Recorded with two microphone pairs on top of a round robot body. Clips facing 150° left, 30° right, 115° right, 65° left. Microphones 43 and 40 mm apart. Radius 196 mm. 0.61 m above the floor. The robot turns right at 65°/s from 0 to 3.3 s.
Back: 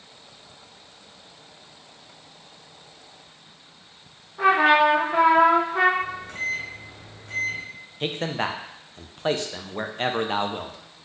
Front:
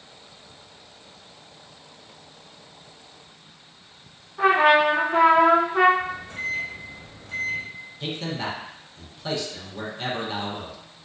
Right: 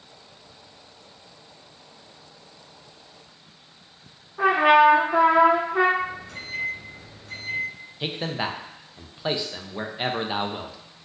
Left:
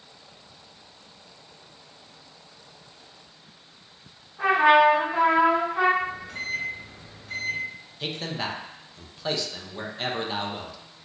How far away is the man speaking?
About 0.6 m.